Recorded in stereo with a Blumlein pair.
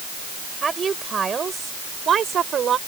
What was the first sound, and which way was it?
A woman speaking, 15° right.